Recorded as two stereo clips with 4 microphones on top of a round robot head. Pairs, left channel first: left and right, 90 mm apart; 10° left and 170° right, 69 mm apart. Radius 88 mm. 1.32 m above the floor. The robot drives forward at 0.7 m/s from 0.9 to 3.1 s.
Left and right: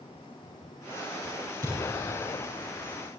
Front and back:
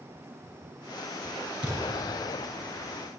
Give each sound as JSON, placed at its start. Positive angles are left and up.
{"t": 1.6, "sound": "a thud", "azimuth_deg": -145, "distance_m": 6.0}